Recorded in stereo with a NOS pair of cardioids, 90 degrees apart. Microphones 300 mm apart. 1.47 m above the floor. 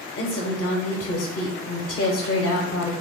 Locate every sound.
0.2 s a woman speaking: 45° left, 0.9 m